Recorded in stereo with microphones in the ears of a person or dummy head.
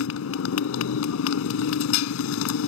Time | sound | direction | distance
0.0 | a motorcycle | 80° left | ?